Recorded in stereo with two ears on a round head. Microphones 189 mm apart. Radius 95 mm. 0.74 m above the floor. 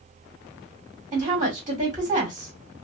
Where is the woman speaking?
25° right (ahead or behind), 1.7 m.